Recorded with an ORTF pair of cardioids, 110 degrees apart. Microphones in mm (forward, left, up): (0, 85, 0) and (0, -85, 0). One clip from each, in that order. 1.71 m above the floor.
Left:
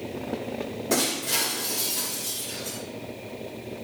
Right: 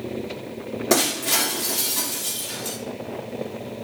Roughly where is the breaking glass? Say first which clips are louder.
Right 5 dB; ahead right.